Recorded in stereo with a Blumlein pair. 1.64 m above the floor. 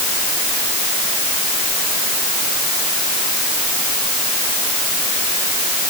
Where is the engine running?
I don't hear an engine running.